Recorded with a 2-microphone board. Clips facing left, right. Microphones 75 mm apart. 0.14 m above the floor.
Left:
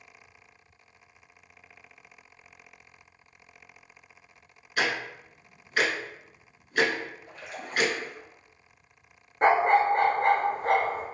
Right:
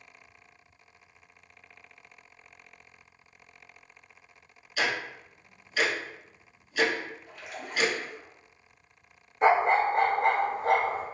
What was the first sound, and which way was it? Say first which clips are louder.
Ticking: left 1 dB; 50° left (ahead or behind).